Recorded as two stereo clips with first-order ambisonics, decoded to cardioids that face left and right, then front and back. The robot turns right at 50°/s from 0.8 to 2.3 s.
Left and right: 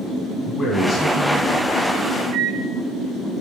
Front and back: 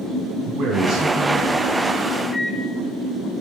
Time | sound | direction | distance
0.5 | a man speaking | 155° left | 1.4 m
2.3 | a microwave | 60° right | 1.1 m